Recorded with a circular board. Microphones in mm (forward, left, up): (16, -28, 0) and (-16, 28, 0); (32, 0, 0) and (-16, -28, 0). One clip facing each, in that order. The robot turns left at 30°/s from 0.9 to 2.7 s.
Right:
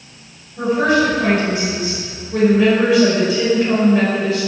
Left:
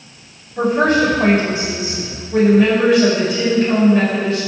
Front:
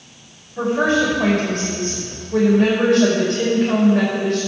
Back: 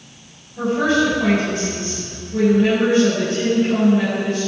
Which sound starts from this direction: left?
A woman speaking, at 0.6 s.